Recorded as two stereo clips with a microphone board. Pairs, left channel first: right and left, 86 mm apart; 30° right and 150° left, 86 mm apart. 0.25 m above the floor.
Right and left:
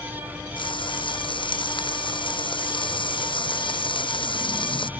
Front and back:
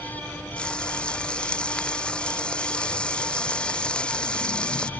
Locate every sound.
0.6 s frying: 110° right